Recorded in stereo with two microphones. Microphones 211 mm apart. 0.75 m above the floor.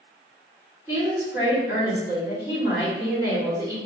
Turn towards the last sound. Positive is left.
turn(degrees=-15)  # may be behind; listen again after turning